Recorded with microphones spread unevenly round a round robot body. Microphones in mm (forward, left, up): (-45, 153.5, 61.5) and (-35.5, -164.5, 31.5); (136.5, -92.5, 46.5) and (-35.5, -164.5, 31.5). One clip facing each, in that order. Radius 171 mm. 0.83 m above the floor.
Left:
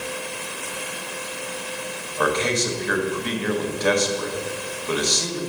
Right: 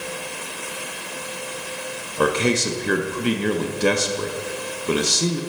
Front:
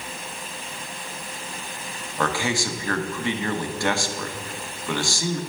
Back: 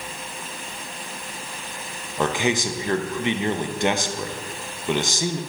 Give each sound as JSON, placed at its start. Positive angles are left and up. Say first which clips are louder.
{"t": 2.2, "sound": "a man speaking", "louder": "right 3 dB, back 3 dB", "azimuth_deg": -100, "distance_m": 0.7}